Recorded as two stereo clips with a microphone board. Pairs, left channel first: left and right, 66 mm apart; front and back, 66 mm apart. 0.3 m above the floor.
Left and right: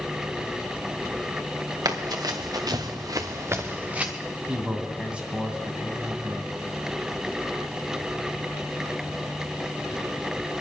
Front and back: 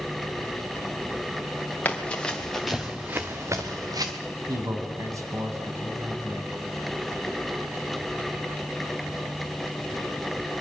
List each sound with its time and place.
1.9 s running footsteps: 65° right, 2.5 m; by 4.1 s 165° right, 1.9 m
4.5 s a man speaking: 160° right, 2 m